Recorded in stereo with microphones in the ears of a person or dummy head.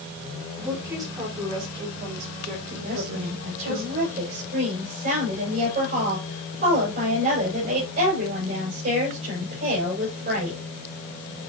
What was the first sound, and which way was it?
A woman speaking, 15° right (ahead or behind).